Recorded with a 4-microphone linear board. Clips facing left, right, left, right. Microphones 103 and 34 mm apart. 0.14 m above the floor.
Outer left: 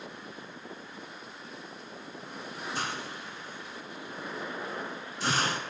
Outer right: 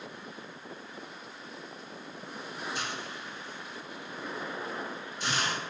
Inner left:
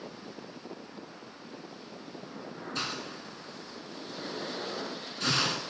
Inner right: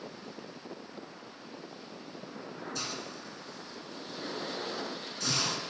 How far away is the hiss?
About 0.6 m.